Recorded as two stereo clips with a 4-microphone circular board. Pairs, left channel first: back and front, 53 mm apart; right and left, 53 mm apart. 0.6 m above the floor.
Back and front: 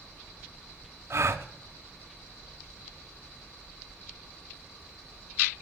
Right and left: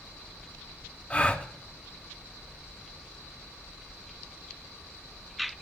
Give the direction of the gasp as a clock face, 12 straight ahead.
1 o'clock.